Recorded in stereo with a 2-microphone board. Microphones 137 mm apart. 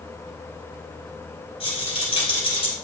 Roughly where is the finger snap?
I don't hear a finger snap.